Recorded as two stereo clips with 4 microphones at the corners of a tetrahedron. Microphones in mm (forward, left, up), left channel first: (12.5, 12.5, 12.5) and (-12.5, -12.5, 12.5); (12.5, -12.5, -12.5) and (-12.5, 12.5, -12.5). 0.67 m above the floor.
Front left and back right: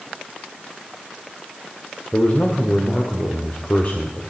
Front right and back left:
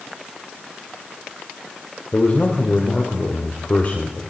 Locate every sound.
2.1 s a man speaking: 5° left, 2 m